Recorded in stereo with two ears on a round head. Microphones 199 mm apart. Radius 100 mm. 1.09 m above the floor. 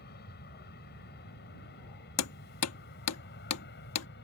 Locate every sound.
0.0 s an aircraft: 50° left (ahead or behind)
2.2 s hammering: 85° left